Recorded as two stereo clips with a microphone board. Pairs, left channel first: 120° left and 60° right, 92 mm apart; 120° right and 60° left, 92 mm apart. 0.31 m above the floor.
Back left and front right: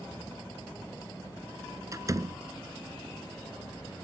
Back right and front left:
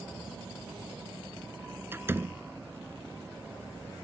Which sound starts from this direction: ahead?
A door slam, at 1.9 s.